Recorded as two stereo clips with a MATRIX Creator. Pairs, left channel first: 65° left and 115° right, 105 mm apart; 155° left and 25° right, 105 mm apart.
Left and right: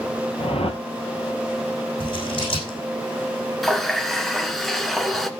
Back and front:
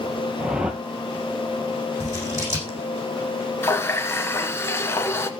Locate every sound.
0.4 s a whoosh: 60° left, 1.3 m
2.0 s scissors: 40° left, 7 m
3.6 s a running tap: 155° left, 1.0 m